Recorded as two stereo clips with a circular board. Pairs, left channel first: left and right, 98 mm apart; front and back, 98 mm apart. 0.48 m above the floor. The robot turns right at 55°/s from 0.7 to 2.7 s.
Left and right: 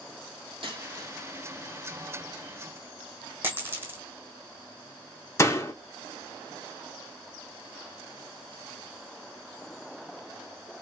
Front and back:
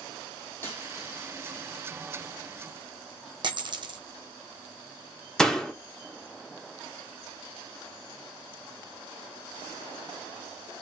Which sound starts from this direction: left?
A door slam, at 5.4 s.